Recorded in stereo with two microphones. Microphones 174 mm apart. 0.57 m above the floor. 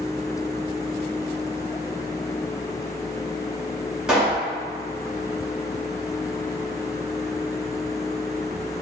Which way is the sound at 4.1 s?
5° right (ahead or behind).